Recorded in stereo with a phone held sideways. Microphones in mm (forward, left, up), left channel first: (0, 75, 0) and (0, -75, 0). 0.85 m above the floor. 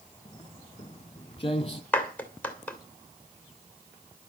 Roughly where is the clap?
Centre.